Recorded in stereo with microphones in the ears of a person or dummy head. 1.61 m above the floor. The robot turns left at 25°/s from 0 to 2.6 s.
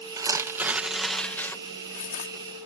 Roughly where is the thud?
I don't hear a thud.